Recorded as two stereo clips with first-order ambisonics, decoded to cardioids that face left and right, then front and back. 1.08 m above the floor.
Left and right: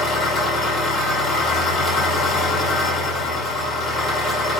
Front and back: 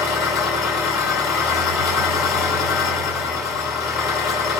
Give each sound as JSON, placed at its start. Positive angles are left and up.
{"t": 0.0, "sound": "an engine running", "azimuth_deg": 30, "distance_m": 6.0}